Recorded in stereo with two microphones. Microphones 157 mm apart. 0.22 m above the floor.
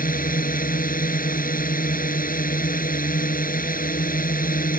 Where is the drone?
65° left (ahead or behind).